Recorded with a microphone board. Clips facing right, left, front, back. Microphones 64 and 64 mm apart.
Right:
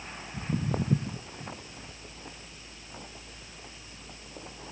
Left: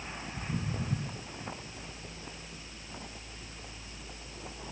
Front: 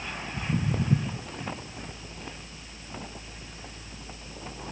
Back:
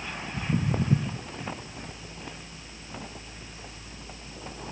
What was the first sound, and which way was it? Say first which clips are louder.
Footsteps: right 7 dB, back 1 dB; 135° right.